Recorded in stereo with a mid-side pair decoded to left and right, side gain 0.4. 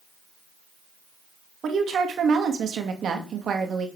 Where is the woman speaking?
60° right, 2.5 m.